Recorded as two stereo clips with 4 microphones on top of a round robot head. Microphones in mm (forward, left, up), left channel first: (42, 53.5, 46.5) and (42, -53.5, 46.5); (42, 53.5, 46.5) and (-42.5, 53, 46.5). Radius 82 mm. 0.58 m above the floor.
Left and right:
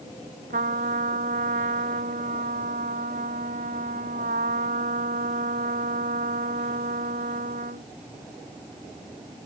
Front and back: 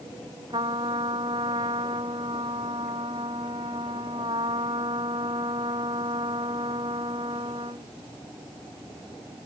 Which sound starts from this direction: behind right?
A trumpet, at 0.5 s.